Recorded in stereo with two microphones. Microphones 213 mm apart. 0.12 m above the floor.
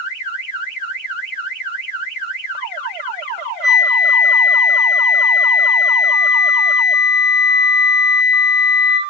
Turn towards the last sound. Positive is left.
turn(degrees=0)  # may be behind; listen again after turning